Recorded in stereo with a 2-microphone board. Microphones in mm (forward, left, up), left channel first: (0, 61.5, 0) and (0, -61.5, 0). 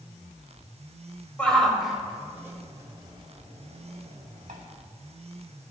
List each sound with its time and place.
1.4 s a shout: 10° left (ahead or behind), 2.5 m; by 4.6 s 65° right (ahead or behind), 3 m